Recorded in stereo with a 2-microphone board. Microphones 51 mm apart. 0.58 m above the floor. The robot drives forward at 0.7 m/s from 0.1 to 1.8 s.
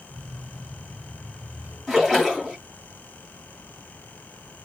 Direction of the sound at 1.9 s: 5° right (ahead or behind).